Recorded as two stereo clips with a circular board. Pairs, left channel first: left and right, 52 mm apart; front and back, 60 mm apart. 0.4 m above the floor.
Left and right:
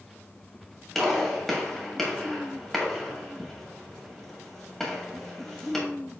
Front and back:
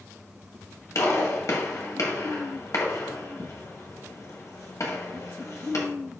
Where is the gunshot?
5° left, 1.9 m.